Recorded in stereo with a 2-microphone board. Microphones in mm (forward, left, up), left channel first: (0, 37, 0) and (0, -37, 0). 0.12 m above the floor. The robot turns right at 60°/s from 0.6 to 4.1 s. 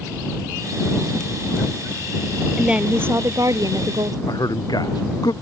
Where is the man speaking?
65° left (ahead or behind).